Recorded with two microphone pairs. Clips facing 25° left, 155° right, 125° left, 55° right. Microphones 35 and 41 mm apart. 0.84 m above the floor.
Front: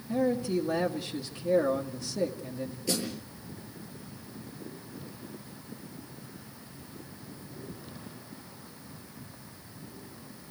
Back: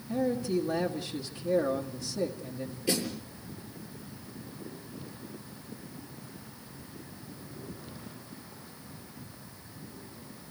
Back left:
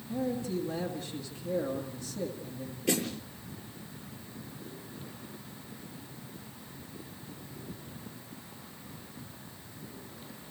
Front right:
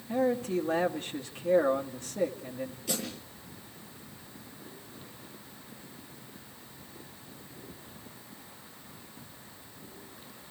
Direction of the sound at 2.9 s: 140° left.